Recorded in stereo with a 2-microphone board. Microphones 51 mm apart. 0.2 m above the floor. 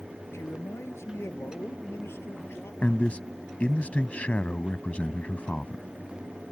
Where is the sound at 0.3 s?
65° left (ahead or behind); by 2.7 s 55° left (ahead or behind).